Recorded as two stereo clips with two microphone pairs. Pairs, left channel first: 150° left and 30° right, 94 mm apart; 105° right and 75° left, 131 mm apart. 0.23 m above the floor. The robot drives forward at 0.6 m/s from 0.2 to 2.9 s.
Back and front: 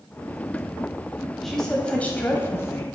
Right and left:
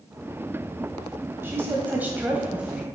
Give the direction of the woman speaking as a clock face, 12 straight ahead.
10 o'clock.